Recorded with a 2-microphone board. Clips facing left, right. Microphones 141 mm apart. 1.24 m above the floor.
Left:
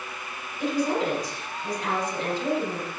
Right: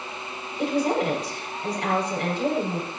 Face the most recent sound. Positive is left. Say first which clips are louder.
# right 2 dB
turn(degrees=-70)  # may be behind; listen again after turning